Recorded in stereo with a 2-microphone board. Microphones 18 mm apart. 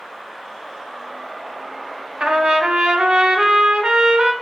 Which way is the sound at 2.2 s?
65° right (ahead or behind).